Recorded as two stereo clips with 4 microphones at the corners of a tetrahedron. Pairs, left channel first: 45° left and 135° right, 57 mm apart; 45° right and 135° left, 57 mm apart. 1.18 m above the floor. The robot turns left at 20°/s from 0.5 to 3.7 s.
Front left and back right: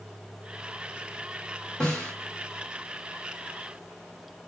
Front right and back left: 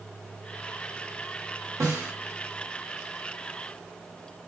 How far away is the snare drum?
About 1.2 m.